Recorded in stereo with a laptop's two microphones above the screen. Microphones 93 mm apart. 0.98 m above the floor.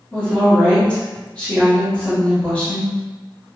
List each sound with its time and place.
0.1 s a woman speaking: 15° left (ahead or behind), 1.3 m